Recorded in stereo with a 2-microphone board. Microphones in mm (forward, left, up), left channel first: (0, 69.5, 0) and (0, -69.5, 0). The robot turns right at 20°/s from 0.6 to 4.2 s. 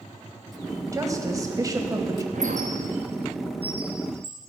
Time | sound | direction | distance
0.9 | a woman speaking | 25° right (ahead or behind) | 1.5 m
2.3 | a squeak | 75° right (ahead or behind) | 1.2 m